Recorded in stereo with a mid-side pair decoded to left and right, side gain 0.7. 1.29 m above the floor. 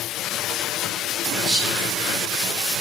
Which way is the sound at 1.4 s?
65° right.